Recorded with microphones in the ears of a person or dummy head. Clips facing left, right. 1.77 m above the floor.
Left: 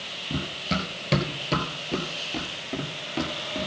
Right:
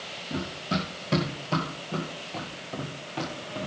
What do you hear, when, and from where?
0.3 s running footsteps: 25° left (ahead or behind), 1.9 m